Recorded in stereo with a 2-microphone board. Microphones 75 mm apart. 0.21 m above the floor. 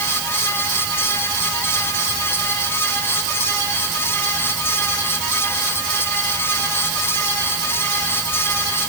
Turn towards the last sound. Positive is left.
No sound to turn to.